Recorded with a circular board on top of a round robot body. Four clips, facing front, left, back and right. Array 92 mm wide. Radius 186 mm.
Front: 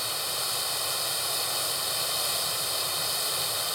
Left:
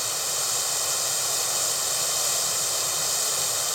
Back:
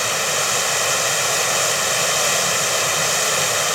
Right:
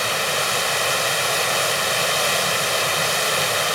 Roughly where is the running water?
Behind right.